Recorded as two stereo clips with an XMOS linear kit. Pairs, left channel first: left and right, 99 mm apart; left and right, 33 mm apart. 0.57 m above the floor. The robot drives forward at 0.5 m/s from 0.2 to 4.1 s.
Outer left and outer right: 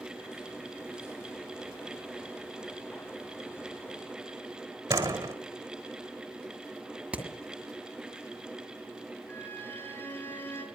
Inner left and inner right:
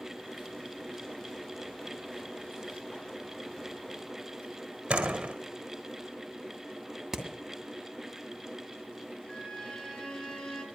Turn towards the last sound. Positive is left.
turn(degrees=20)  # may be behind; listen again after turning